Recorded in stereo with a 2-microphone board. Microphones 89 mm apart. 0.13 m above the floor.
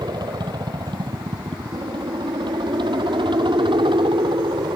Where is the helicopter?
55° right (ahead or behind); by 4.8 s 70° right (ahead or behind).